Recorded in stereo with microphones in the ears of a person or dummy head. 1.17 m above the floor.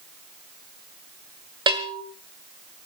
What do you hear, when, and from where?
1.7 s a bell: 25° right (ahead or behind), 1.6 m